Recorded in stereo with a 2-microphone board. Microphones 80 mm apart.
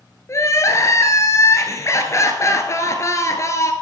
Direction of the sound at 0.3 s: 40° left (ahead or behind).